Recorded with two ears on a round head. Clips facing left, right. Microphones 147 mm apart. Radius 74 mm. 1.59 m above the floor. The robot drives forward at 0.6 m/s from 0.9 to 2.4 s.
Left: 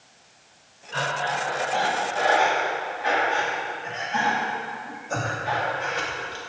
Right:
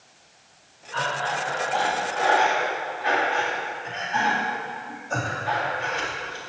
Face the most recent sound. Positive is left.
turn(degrees=25)  # may be behind; listen again after turning